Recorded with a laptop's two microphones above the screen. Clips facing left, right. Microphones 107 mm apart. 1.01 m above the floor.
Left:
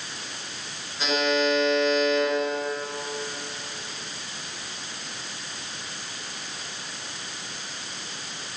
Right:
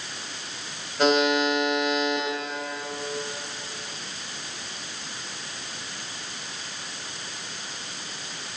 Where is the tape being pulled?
I don't hear tape being pulled.